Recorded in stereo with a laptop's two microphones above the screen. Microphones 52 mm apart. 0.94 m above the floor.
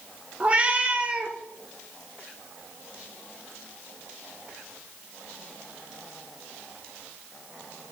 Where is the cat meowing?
25° right (ahead or behind), 0.9 m.